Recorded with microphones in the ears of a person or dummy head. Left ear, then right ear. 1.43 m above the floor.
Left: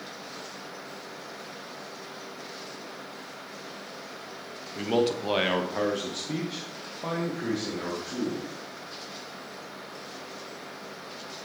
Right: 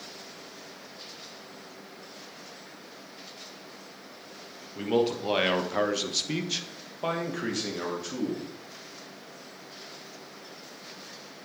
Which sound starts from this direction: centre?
A man speaking, at 4.8 s.